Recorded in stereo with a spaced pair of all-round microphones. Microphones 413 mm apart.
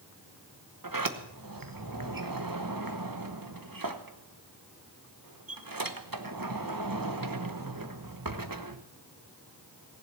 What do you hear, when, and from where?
0.8 s a sliding door: 55° right (ahead or behind), 1.1 m